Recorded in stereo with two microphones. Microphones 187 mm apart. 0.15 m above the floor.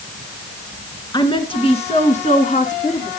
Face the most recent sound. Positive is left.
turn(degrees=40)  # may be behind; listen again after turning